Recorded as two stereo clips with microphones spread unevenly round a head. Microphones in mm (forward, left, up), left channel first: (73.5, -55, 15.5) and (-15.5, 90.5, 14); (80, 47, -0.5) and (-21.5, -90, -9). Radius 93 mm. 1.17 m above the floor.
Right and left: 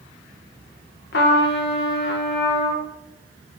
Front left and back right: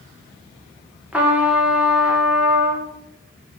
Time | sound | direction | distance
1.1 | a trumpet | 45° right | 1.2 m